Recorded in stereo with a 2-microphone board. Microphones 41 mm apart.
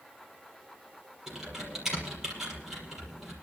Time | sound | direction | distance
1.3 | typing on a keyboard | 10° right (ahead or behind) | 6 m